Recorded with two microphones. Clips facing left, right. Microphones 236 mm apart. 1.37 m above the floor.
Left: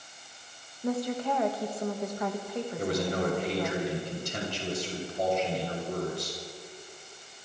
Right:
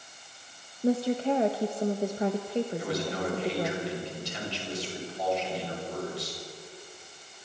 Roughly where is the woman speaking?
Right.